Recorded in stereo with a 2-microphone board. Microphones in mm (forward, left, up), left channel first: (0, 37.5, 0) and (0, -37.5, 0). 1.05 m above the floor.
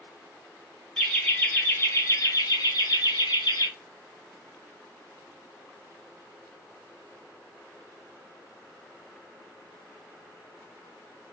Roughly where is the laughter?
Centre.